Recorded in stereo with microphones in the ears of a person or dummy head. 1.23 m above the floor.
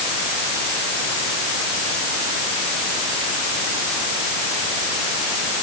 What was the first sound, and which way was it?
Only background noise.